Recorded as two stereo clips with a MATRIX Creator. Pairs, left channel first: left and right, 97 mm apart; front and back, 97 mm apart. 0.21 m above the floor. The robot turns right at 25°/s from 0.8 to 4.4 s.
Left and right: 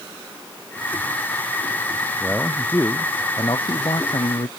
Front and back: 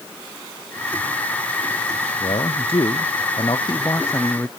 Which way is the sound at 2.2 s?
10° left.